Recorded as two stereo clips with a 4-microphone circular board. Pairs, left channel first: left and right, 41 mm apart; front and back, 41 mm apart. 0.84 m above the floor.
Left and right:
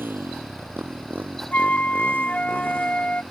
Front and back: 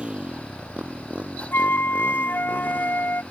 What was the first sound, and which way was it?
A motorcycle, 120° right.